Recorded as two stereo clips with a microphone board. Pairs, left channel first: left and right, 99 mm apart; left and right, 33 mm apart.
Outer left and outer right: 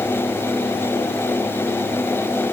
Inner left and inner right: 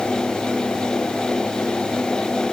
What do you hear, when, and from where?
Only background noise.